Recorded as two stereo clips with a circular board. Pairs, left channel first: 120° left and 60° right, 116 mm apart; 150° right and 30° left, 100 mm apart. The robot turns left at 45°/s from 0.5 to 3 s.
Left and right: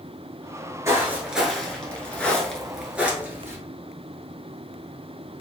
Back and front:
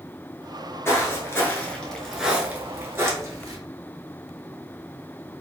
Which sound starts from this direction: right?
Footsteps, at 0.8 s.